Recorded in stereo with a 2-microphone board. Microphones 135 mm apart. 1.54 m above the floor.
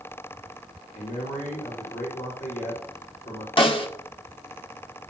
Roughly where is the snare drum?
Left.